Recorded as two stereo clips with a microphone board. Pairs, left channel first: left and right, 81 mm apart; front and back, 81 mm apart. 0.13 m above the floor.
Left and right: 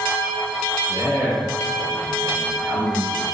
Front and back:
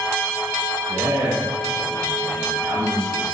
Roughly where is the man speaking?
Behind right.